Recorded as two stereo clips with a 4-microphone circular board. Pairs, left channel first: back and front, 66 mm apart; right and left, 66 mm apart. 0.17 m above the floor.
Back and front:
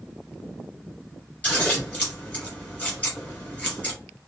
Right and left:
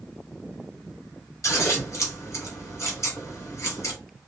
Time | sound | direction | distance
1.4 | scissors | 115° right | 1.6 m